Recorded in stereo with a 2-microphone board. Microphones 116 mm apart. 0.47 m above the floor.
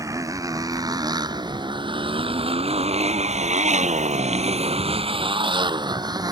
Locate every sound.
0.0 s a motorcycle: 30° right (ahead or behind); by 6.3 s 35° right (ahead or behind)